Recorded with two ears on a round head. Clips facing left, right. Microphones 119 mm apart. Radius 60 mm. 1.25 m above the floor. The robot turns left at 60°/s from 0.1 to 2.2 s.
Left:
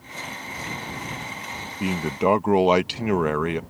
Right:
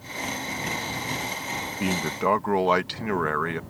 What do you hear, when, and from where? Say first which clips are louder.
1.8 s a man speaking: left 3 dB; centre (ahead or behind); by 3.6 s 20° left (ahead or behind)